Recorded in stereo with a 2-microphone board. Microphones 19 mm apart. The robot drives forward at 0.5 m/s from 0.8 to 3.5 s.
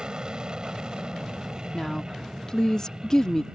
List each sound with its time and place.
0.0 s an aircraft: 40° right (ahead or behind)
1.7 s a woman speaking: 30° left (ahead or behind)